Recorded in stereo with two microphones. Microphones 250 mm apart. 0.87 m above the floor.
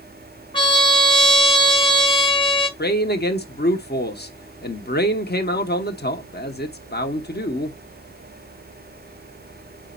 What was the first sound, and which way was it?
A trumpet, 20° left (ahead or behind).